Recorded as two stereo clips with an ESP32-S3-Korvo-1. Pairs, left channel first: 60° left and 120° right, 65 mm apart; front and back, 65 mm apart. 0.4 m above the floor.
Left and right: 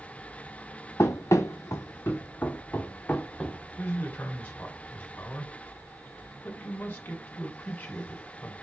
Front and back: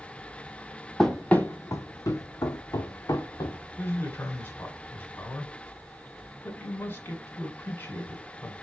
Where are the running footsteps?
85° left, 0.6 m; by 3.6 s 15° right, 1.3 m.